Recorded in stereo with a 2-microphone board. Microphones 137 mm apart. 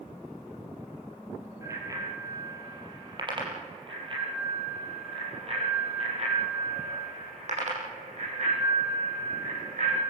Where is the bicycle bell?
20° right (ahead or behind), 6 m; by 10.0 s 65° right (ahead or behind), 11 m.